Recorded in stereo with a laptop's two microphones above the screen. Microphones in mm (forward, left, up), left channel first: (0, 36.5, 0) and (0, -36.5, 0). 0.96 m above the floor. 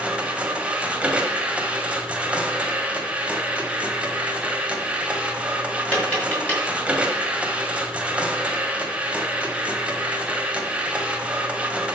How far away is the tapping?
About 4.5 m.